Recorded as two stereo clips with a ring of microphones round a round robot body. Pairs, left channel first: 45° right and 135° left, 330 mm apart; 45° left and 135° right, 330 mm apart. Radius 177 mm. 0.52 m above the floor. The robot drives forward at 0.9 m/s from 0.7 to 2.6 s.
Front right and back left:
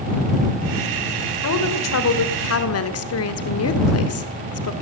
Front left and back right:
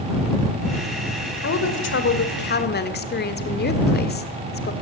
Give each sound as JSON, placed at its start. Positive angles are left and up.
{"t": 1.4, "sound": "a woman speaking", "azimuth_deg": -5, "distance_m": 2.5}